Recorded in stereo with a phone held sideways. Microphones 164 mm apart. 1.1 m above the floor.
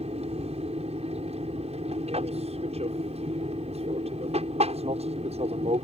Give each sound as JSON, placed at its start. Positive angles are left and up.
{"t": 0.0, "sound": "an aircraft", "side_deg": -40}